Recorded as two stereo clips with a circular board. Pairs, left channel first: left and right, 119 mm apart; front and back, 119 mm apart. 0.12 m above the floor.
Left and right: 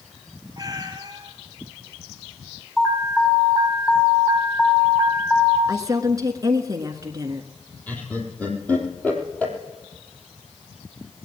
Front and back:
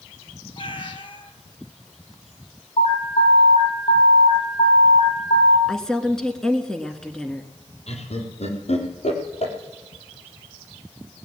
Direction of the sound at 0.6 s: 35° right.